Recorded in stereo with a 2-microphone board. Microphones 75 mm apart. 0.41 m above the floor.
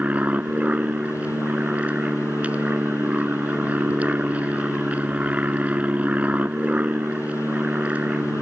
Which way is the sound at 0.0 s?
20° right (ahead or behind).